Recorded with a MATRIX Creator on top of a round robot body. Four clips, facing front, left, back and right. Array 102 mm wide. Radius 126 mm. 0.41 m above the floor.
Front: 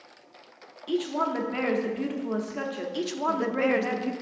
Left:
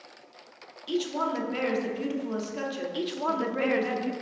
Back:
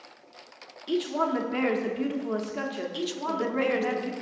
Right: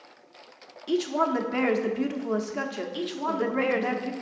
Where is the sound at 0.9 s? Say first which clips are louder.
Right 4 dB, back 1 dB; 90° right, 0.9 m.